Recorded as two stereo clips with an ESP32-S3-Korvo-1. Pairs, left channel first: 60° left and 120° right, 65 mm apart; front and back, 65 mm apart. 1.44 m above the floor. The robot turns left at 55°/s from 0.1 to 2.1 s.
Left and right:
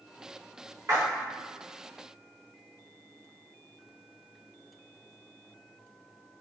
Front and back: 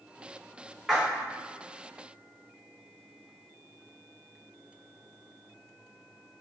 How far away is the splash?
About 1.0 m.